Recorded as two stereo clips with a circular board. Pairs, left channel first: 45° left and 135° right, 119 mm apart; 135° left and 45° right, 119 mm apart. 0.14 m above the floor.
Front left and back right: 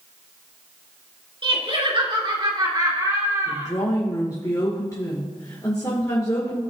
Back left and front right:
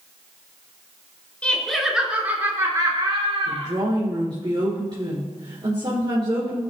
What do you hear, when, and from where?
1.4 s laughter: 150° right, 2.5 m; by 3.7 s 75° right, 3 m
3.5 s a woman speaking: 10° right, 2.5 m